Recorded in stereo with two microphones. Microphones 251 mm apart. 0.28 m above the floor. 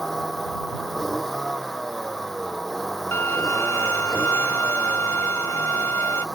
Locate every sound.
0.0 s a vehicle: centre (ahead or behind)
3.1 s a violin: 70° right (ahead or behind)